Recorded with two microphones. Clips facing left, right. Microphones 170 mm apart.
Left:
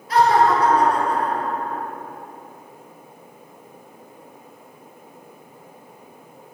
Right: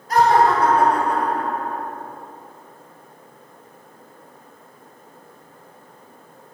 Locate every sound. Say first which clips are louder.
0.1 s laughter: right 1 dB; 45° right (ahead or behind), 2 m; by 1.8 s 70° right (ahead or behind), 3 m